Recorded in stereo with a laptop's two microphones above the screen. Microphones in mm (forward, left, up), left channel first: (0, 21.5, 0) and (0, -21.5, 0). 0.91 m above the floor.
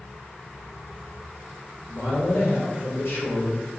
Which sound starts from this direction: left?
A man speaking, at 1.9 s.